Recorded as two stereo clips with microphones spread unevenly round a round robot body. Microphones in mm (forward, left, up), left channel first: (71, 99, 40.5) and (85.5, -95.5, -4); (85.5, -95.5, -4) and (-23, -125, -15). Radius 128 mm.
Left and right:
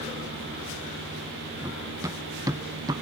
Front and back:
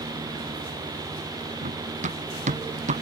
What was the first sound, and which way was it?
Running footsteps, 165° right.